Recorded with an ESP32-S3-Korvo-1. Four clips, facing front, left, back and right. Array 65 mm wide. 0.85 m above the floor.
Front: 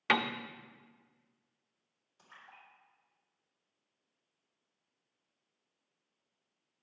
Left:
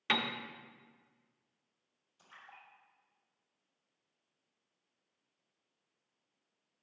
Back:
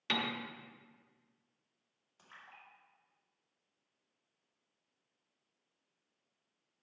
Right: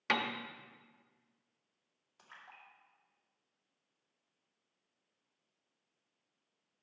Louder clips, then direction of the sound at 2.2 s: Even, even; 100° right.